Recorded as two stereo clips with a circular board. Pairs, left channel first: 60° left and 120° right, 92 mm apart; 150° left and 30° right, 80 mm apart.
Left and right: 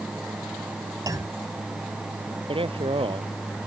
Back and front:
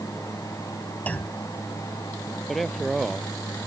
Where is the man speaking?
120° right.